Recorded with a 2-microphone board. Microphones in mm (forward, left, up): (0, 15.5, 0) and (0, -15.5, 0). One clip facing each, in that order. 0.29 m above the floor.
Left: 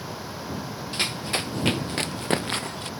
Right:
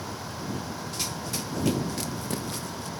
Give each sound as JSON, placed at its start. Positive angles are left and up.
{"t": 0.9, "sound": "running footsteps", "side_deg": 55}